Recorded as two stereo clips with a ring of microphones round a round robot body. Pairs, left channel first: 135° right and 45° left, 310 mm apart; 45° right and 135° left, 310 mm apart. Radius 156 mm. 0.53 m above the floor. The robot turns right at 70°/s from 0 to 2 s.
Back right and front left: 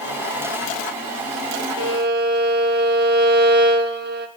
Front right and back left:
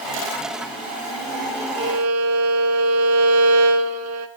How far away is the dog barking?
I don't hear a dog barking.